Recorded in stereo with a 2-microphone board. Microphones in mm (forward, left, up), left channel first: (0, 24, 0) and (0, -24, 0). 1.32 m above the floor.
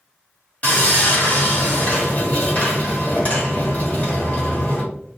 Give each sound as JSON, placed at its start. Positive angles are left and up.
{"t": 0.6, "sound": "sawing", "side_deg": 40, "distance_m": 1.2}